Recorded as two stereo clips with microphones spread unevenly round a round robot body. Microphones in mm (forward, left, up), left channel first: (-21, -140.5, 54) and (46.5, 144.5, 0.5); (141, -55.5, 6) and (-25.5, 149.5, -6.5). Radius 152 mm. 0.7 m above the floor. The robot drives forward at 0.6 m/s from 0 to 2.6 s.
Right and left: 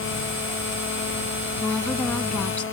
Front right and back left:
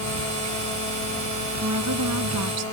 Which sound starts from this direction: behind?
A woman speaking, at 1.6 s.